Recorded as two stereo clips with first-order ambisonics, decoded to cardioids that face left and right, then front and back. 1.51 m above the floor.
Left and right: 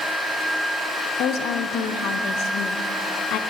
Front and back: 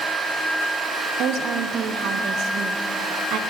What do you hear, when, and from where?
1.2 s a woman speaking: 135° left, 0.6 m